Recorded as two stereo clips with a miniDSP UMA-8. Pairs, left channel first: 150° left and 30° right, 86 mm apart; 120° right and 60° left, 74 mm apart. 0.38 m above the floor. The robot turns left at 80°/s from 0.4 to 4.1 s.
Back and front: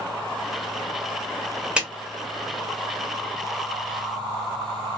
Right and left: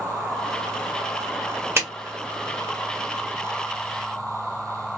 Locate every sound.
1.8 s a clap: 40° left, 1.1 m; by 1.9 s 30° left, 1.1 m